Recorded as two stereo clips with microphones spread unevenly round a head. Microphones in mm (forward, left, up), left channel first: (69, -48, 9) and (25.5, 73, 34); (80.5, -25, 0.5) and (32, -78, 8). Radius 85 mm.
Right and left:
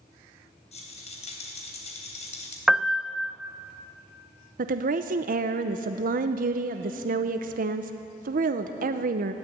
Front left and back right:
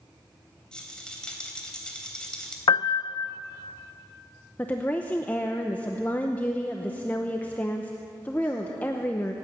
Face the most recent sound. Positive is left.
turn(degrees=115)